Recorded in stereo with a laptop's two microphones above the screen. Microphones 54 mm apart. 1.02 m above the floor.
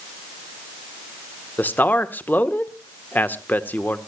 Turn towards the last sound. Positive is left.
turn(degrees=35)  # may be behind; listen again after turning